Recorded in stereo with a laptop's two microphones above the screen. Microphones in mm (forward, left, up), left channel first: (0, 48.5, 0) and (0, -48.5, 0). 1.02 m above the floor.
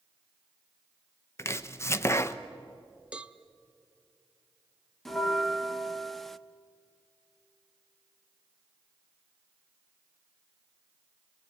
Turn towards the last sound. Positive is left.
turn(degrees=5)  # may be behind; listen again after turning